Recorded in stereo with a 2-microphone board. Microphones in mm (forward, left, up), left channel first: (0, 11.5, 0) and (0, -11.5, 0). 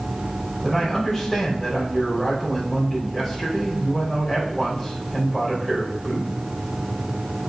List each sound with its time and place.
0.6 s a man speaking: centre (ahead or behind), 3.5 m